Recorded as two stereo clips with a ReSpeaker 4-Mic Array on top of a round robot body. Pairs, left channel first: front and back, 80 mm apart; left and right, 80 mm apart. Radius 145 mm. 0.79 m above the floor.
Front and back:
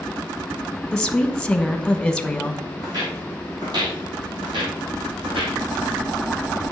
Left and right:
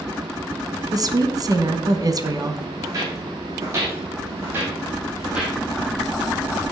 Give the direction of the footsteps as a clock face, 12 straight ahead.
5 o'clock.